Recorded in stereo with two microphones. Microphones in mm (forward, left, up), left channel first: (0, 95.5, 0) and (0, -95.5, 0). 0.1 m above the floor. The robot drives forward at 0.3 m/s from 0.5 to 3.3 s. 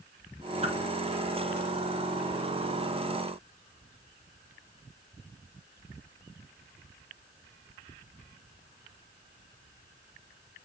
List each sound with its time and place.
0.6 s a whoosh: 35° right (ahead or behind), 1.2 m